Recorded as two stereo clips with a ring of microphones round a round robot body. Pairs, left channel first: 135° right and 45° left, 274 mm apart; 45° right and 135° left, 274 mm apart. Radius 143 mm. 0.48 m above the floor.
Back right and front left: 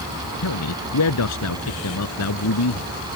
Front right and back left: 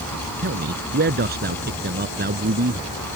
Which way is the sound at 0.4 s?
170° right.